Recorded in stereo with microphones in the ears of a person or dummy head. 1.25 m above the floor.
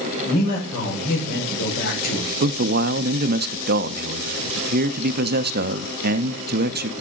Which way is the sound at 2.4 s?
55° right (ahead or behind).